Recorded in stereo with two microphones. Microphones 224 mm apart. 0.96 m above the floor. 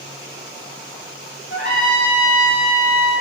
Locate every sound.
1.5 s a trumpet: 50° left (ahead or behind), 2.5 m